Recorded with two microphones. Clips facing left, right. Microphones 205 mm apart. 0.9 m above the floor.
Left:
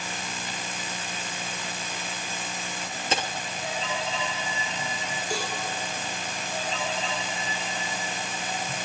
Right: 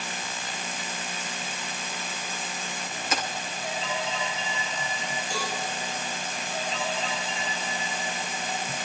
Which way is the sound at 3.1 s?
30° left (ahead or behind).